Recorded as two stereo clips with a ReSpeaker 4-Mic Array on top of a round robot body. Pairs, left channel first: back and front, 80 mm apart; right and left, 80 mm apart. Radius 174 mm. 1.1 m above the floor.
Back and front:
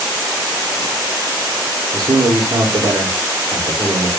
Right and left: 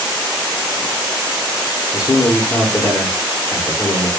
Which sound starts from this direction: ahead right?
A man speaking, at 1.9 s.